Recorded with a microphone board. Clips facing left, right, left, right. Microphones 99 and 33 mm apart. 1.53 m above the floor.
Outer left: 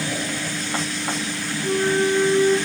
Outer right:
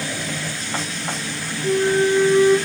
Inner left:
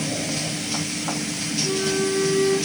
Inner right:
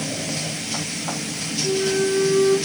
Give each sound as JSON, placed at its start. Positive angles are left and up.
{"t": 1.6, "sound": "a flute", "side_deg": 55, "distance_m": 1.7}